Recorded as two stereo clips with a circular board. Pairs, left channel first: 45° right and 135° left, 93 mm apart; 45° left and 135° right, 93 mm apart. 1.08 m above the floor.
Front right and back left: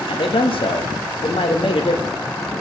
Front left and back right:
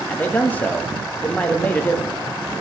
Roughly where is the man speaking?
Ahead right.